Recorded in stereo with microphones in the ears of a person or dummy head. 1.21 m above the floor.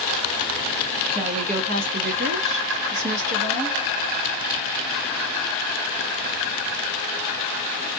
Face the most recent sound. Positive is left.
turn(degrees=-50)  # may be behind; listen again after turning